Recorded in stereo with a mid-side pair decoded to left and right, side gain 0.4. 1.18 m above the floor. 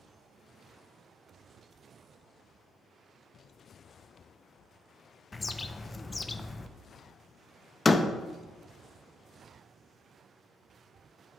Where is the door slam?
25° left, 0.7 m.